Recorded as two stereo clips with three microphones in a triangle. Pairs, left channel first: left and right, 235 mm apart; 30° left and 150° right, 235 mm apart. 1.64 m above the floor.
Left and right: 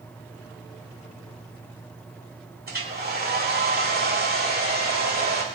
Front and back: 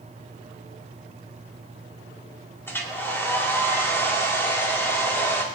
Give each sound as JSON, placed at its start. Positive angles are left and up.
{"t": 2.7, "sound": "a hair dryer", "azimuth_deg": -50, "distance_m": 2.0}